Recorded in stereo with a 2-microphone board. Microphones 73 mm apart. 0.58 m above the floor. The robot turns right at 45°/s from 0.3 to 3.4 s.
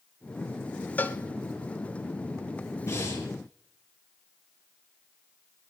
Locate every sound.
1.0 s a cowbell: 25° left (ahead or behind), 0.7 m; by 1.2 s 35° left (ahead or behind), 0.7 m
2.9 s breathing: 40° left (ahead or behind), 5.5 m; by 3.2 s 60° left (ahead or behind), 5.5 m